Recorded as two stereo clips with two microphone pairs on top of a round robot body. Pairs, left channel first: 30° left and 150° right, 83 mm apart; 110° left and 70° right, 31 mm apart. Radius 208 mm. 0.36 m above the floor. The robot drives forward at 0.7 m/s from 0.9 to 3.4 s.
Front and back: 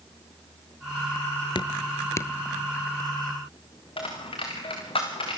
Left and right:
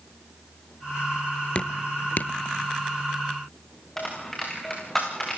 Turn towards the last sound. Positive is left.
turn(degrees=30)